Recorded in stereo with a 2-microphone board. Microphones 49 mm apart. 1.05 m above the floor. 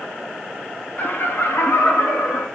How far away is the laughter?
About 0.9 m.